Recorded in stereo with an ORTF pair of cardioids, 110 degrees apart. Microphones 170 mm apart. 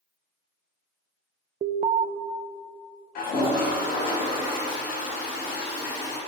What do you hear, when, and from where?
1.6 s an alarm: 40° right, 0.6 m
3.1 s a toilet flushing: 65° left, 4 m